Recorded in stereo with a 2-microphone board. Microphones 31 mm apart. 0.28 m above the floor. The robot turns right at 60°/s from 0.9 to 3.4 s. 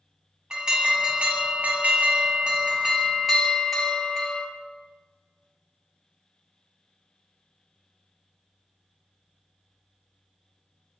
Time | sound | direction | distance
0.5 | an alarm | 150° right | 2.5 m